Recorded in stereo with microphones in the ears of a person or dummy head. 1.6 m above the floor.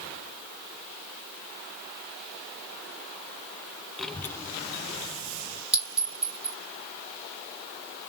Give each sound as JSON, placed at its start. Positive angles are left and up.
{"t": 4.0, "sound": "a child speaking", "side_deg": 5, "distance_m": 0.6}
{"t": 5.7, "sound": "a clink", "side_deg": 0, "distance_m": 2.0}